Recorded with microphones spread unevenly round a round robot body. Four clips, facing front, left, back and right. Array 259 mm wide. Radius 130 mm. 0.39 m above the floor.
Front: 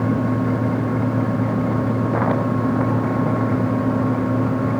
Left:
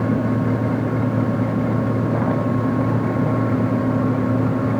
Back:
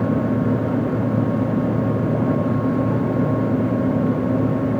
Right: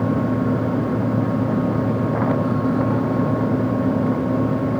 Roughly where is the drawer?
I don't hear a drawer.